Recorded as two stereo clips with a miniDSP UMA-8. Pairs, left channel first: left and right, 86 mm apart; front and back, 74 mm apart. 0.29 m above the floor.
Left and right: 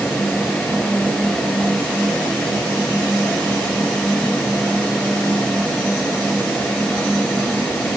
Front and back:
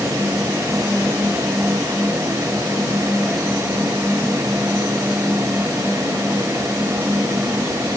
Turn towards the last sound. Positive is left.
No sound to turn to.